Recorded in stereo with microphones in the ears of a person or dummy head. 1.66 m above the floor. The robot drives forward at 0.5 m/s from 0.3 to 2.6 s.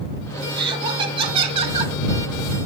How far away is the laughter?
About 1.7 m.